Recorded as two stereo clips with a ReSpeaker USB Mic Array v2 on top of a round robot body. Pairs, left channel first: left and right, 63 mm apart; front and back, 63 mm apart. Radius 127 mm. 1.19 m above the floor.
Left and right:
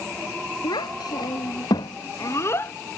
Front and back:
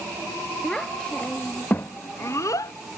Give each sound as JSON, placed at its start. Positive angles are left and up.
{"t": 0.6, "sound": "a child speaking", "azimuth_deg": 85}